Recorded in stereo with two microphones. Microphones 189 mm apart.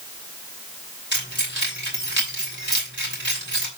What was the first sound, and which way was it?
Keys jangling, 75° right (ahead or behind).